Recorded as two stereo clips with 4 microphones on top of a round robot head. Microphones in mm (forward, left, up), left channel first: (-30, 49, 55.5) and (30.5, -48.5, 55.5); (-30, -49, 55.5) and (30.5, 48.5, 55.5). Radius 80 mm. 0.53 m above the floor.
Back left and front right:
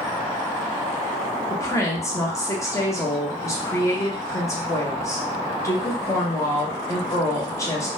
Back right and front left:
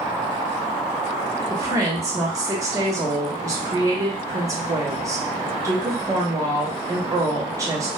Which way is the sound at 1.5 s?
90° left.